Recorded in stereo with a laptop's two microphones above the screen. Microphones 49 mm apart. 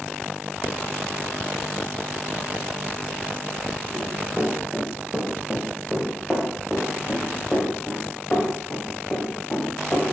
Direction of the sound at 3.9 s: 5° right (ahead or behind).